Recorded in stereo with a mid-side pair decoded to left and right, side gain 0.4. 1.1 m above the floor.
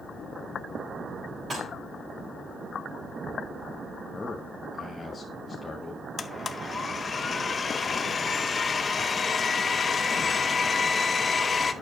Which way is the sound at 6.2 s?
40° left.